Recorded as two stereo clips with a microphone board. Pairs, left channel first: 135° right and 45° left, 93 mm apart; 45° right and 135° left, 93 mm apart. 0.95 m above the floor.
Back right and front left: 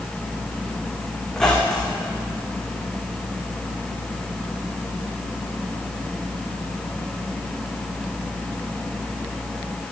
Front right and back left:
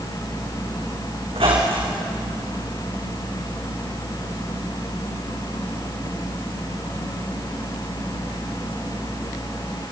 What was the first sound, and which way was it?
A squeak, 140° left.